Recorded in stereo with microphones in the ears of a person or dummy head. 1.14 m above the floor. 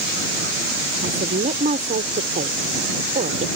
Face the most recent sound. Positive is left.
turn(degrees=-45)  # may be behind; listen again after turning